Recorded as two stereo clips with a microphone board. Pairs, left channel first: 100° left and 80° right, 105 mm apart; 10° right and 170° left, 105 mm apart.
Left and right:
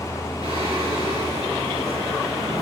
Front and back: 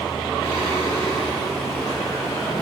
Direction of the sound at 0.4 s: 60° right.